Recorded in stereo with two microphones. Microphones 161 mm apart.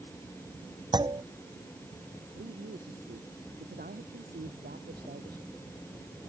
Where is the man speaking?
75° right (ahead or behind).